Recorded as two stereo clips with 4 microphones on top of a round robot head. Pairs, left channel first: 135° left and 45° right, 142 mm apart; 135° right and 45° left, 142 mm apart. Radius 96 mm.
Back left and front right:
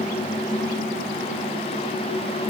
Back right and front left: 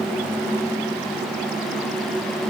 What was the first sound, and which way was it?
Only background noise.